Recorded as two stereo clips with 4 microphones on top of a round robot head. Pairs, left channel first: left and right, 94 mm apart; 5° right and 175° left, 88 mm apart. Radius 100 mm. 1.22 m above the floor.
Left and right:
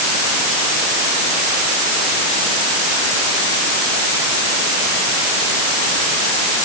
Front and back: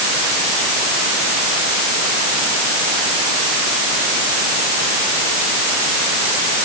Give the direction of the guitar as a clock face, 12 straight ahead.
I don't hear a guitar.